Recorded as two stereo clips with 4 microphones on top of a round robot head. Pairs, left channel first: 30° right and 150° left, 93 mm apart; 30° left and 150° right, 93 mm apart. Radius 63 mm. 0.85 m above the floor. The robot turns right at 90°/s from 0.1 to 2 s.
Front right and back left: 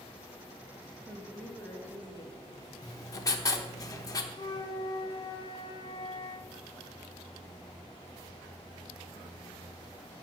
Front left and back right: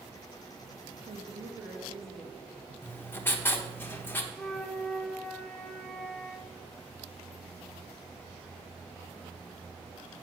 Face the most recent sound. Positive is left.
turn(degrees=-50)